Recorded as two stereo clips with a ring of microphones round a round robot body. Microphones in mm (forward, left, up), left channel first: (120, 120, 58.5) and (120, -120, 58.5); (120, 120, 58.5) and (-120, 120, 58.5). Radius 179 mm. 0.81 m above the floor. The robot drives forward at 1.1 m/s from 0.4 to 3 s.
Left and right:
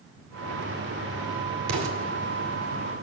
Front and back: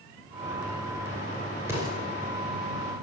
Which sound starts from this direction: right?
An explosion, at 1.7 s.